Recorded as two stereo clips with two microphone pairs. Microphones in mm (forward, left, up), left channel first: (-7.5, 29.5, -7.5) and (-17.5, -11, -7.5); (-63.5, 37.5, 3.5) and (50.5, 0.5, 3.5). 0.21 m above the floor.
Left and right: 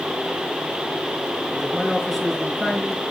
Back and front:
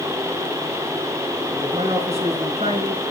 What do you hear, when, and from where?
1.5 s a man speaking: 15° right, 4 m